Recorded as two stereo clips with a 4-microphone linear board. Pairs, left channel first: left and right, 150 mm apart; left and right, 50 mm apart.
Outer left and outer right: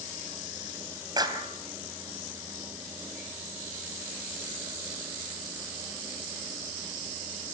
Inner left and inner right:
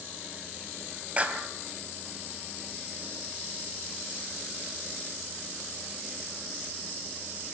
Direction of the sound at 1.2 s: 25° right (ahead or behind).